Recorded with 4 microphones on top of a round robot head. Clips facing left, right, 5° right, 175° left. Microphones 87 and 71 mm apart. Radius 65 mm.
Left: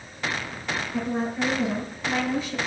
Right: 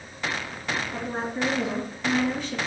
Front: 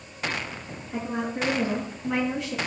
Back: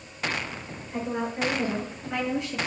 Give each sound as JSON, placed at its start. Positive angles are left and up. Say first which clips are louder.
{"t": 0.9, "sound": "a woman speaking", "louder": "left 3 dB, even", "azimuth_deg": -35, "distance_m": 7.0}